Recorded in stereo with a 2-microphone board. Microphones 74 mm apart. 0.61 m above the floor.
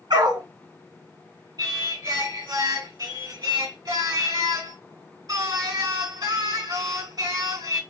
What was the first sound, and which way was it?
A dog barking, 75° right (ahead or behind).